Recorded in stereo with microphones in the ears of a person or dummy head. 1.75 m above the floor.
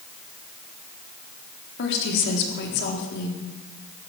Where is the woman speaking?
60° left (ahead or behind), 4 m.